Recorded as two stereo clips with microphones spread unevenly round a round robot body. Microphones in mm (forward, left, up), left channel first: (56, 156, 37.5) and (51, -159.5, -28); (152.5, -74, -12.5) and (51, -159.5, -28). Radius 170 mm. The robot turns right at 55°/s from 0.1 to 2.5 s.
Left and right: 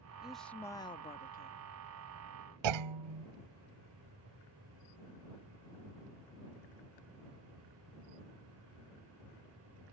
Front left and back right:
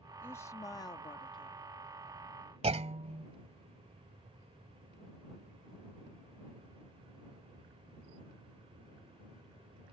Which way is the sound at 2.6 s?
95° right.